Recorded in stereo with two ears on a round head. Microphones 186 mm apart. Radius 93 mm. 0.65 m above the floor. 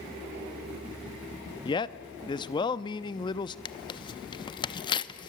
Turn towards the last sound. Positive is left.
turn(degrees=25)  # may be behind; listen again after turning